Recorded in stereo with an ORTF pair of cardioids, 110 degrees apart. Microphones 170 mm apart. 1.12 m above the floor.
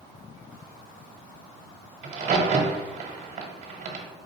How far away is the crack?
About 1.1 m.